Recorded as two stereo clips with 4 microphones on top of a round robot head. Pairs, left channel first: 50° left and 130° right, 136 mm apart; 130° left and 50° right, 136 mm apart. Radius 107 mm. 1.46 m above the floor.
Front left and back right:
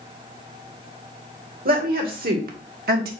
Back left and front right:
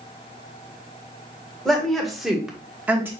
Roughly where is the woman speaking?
Behind right.